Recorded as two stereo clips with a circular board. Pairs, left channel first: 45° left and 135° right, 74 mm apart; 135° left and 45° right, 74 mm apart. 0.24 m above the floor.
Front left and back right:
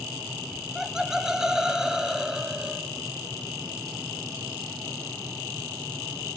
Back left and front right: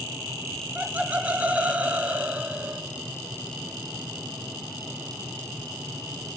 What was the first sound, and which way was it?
Laughter, 65° right.